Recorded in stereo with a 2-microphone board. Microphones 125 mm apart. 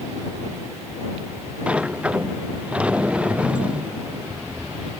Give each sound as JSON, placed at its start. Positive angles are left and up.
{"t": 1.7, "sound": "a sliding door", "side_deg": -10}